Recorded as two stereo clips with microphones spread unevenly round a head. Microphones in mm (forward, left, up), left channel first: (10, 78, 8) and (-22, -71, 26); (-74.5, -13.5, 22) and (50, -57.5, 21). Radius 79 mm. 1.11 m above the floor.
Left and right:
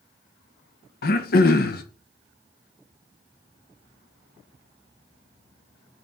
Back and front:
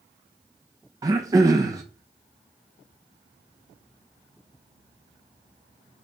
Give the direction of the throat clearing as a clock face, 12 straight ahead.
10 o'clock.